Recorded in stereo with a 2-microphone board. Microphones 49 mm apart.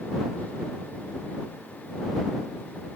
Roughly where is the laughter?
I don't hear laughter.